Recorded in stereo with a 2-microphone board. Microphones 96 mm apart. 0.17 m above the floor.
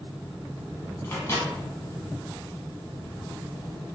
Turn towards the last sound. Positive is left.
turn(degrees=25)  # may be behind; listen again after turning